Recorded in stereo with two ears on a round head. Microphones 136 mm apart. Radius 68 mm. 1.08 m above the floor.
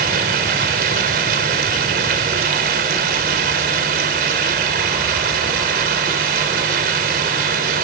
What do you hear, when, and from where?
0.0 s running water: 65° right (ahead or behind), 4 m